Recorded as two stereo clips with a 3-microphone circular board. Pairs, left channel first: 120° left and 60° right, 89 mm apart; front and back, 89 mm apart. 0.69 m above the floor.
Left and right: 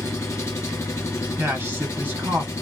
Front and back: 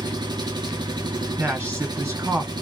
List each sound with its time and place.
0.0 s an engine running: 170° left, 0.7 m
1.4 s a man speaking: 110° right, 1.3 m